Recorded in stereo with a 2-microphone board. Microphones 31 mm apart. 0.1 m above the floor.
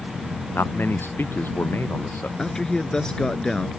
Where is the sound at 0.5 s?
80° left.